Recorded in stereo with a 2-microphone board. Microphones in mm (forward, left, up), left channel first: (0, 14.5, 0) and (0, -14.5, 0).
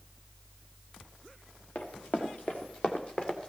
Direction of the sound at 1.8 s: 55° left (ahead or behind).